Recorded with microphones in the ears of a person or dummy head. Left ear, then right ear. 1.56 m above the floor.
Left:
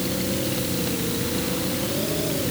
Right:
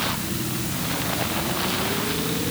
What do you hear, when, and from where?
Only background noise.